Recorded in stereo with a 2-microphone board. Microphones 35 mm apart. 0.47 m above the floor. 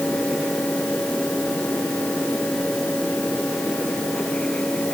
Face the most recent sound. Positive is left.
No sound to turn to.